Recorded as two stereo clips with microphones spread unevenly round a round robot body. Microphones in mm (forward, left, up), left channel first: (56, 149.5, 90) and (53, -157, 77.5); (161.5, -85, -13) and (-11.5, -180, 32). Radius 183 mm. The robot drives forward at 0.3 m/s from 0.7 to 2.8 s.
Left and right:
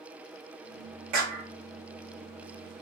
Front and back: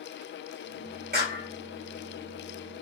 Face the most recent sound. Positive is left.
turn(degrees=-125)